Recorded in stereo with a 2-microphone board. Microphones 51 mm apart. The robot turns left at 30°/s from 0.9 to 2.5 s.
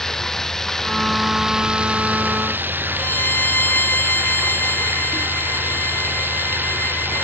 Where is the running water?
5° left; by 7.2 s 40° right.